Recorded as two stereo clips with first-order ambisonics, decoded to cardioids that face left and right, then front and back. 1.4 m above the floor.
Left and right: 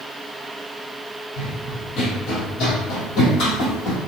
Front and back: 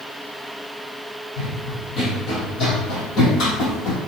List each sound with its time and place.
1.4 s running footsteps: 65° left, 3.5 m; by 4.0 s 40° left, 3 m